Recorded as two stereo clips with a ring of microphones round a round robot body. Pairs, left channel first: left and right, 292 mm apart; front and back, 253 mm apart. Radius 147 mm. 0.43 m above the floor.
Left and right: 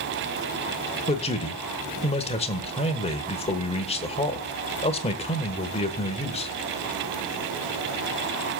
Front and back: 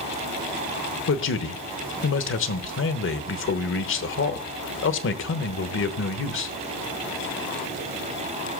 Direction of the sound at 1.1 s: 25° left.